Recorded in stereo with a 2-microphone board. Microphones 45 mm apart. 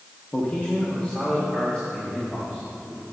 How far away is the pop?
I don't hear a pop.